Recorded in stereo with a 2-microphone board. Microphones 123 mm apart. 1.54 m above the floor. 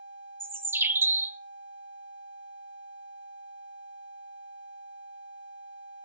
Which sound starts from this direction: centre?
A bird, at 0.4 s.